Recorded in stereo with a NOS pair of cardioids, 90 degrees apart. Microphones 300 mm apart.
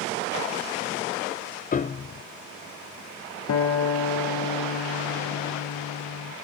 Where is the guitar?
55° left, 1.1 m.